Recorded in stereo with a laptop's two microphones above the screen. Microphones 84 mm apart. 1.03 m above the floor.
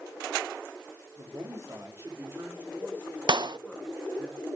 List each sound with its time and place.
1.2 s a man speaking: 45° right (ahead or behind), 3 m; by 4.3 s 5° left (ahead or behind), 3 m
3.3 s a clap: 60° right (ahead or behind), 0.5 m